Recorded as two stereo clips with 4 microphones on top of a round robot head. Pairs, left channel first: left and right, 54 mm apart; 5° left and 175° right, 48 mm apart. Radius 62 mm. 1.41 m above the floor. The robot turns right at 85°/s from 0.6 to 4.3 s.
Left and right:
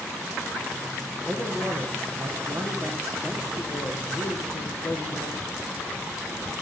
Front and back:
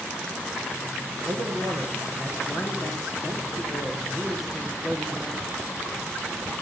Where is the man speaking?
165° right, 1.4 m; by 5.5 s 95° left, 1.4 m.